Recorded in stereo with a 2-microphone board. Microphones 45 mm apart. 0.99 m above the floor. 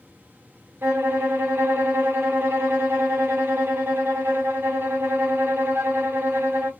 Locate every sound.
0.8 s a violin: 55° right (ahead or behind), 1.2 m